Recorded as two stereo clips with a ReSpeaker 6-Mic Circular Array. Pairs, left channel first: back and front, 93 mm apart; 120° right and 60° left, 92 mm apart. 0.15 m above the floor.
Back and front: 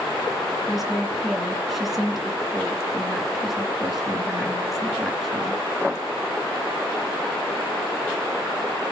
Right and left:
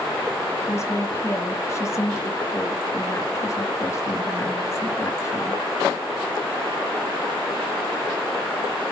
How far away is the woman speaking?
About 1.9 m.